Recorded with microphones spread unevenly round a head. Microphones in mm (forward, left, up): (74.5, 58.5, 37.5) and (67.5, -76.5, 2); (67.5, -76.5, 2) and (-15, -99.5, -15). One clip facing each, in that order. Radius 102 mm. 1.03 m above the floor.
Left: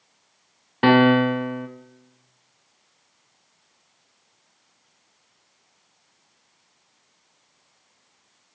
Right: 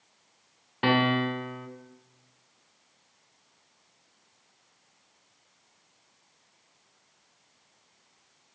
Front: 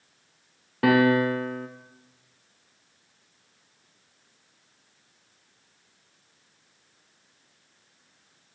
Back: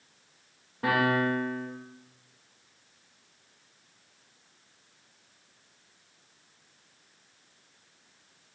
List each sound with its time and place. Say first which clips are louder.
0.8 s a piano: left 9 dB, front 6 dB; 45° left, 0.5 m